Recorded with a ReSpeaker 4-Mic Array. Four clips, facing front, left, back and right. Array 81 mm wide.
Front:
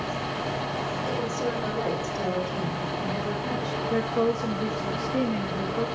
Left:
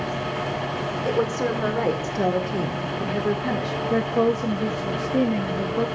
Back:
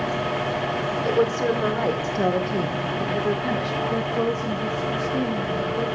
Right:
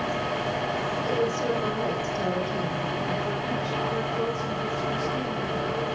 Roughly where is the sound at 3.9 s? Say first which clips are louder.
Left 7 dB, front 2 dB; left.